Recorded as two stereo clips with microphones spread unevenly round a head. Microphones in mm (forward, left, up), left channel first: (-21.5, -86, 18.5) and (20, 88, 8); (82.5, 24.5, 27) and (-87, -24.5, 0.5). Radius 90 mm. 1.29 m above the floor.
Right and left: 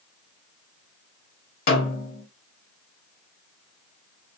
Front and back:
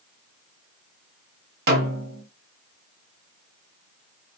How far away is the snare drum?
About 1.5 m.